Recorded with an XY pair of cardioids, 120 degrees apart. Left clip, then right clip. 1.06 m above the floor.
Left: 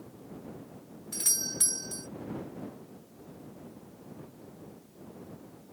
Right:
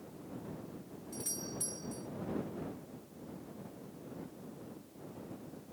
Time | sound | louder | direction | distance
1.1 | a doorbell | left 11 dB | 65° left | ?